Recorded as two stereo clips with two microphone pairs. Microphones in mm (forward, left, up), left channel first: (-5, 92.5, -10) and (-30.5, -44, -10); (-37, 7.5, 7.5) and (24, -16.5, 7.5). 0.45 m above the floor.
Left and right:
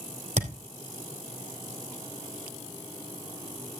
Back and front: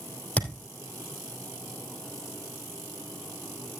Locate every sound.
0.4 s a thud: 130° right, 3 m